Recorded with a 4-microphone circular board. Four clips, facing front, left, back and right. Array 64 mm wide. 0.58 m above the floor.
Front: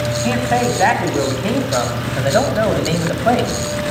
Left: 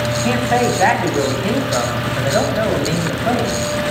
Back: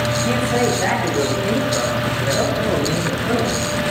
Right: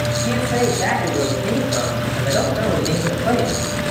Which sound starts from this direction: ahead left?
A man speaking, at 0.2 s.